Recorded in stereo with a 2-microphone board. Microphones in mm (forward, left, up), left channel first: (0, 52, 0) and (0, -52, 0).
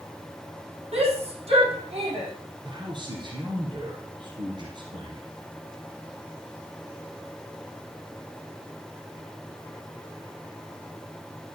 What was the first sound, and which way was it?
A shout, 70° right (ahead or behind).